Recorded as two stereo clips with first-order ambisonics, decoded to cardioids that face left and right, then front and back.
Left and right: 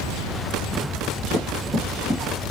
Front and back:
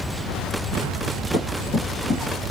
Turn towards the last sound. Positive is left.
turn(degrees=15)